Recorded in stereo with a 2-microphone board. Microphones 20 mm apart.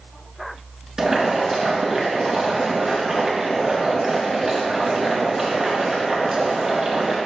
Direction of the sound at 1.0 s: 20° right (ahead or behind).